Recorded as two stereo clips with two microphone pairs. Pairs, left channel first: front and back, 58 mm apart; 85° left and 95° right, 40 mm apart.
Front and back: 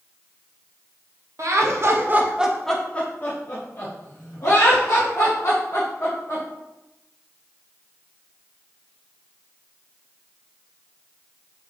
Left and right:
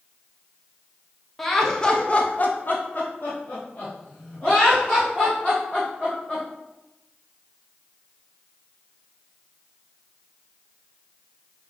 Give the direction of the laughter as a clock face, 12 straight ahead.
6 o'clock.